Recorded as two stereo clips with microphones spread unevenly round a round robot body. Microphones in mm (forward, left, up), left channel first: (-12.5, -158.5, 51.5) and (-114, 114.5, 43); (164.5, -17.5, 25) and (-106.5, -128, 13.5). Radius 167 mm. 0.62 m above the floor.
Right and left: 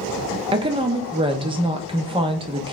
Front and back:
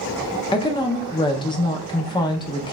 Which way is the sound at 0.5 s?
75° left.